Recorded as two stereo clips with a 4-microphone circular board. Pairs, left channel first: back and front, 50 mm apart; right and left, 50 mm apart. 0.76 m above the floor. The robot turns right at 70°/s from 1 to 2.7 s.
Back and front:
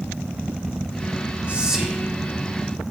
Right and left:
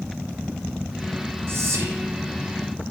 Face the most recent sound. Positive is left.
turn(degrees=145)